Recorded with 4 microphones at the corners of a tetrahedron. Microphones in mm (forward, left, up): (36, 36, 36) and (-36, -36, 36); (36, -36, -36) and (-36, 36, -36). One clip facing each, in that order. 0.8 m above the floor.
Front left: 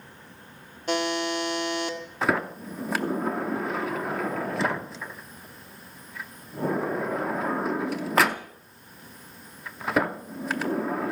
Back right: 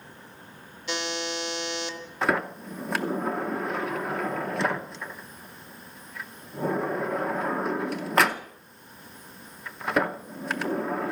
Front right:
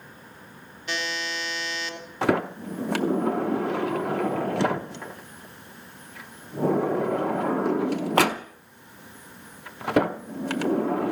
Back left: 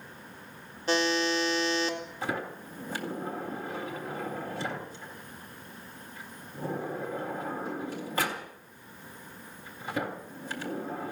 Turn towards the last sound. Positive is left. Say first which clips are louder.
# even, front right 14 dB
turn(degrees=-45)